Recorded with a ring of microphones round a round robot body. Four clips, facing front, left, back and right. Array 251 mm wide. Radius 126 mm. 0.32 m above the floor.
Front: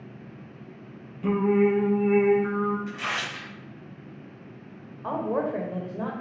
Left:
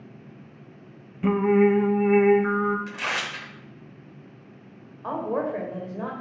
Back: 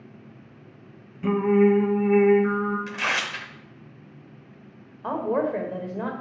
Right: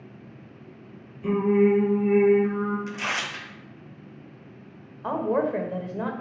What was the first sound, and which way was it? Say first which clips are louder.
Singing: left 1 dB, back 3 dB; 100° left.